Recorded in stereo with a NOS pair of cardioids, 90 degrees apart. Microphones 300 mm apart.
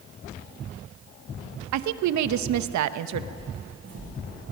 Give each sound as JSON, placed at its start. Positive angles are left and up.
{"t": 1.7, "sound": "a woman speaking", "azimuth_deg": -70, "distance_m": 1.0}
{"t": 3.4, "sound": "footsteps", "azimuth_deg": -40, "distance_m": 6.0}